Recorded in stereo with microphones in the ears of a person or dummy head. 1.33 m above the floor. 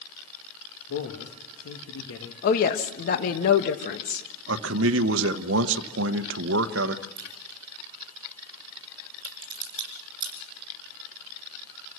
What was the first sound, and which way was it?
A man speaking, 80° left.